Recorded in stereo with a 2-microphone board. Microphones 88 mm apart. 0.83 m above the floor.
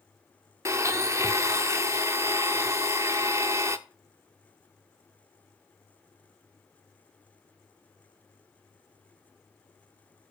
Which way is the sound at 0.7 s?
35° right (ahead or behind).